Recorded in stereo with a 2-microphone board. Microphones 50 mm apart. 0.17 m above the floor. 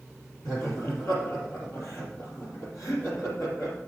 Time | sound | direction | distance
0.5 | laughter | 70° left (ahead or behind) | 4 m